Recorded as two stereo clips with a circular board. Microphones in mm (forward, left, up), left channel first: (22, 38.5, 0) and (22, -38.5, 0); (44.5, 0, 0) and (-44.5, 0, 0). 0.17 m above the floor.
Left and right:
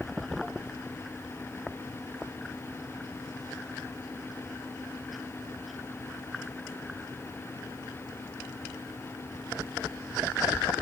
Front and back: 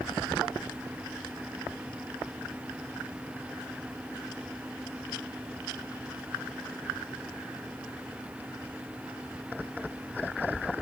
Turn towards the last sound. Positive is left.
No sound to turn to.